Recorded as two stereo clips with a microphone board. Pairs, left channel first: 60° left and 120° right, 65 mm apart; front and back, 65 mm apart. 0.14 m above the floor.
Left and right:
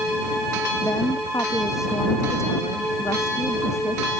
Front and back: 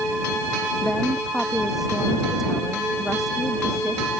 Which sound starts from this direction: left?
A woman speaking, at 0.8 s.